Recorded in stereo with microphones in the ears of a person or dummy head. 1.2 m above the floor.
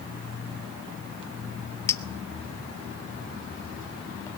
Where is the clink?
15° left (ahead or behind), 0.6 m.